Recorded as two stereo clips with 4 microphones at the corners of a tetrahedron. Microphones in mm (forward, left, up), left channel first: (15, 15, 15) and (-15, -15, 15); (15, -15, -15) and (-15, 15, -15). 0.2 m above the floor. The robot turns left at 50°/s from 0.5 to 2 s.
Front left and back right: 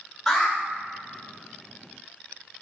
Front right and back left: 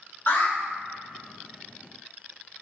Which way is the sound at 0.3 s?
35° right.